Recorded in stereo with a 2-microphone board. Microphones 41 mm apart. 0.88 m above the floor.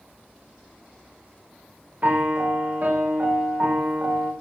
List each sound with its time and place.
2.0 s a piano: 45° right (ahead or behind), 0.6 m